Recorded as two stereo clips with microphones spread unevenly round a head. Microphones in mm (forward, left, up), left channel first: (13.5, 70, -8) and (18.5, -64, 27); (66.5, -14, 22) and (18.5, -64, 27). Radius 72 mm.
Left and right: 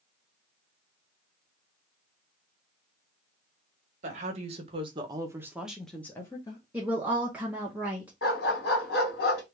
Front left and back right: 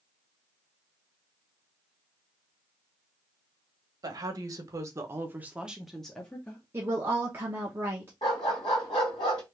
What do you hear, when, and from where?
4.0 s a woman speaking: 130° right, 1.2 m; by 6.6 s 90° left, 0.9 m
6.7 s a woman speaking: straight behind, 0.9 m
8.2 s a dog barking: 90° left, 1.8 m